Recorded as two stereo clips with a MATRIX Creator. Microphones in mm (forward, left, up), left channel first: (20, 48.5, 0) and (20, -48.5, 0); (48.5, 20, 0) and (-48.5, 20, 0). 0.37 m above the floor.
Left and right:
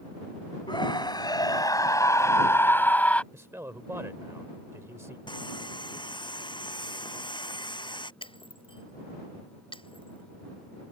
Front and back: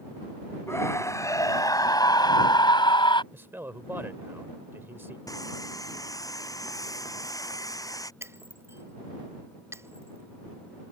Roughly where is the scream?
Ahead left.